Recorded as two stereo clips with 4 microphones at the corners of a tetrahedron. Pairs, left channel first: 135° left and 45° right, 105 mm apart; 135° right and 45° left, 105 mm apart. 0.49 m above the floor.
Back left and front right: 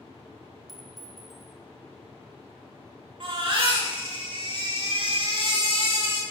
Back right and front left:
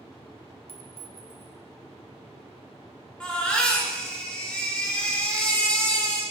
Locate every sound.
0.7 s a clink: 135° right, 0.8 m
3.2 s a baby crying: 55° right, 1.4 m